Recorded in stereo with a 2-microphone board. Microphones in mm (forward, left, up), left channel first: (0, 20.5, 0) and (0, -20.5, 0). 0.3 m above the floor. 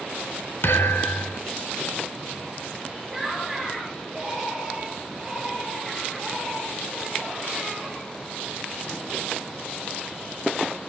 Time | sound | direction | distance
0.6 | a thud | 70° left (ahead or behind) | 1.9 m
3.1 | laughter | 5° right (ahead or behind) | 5 m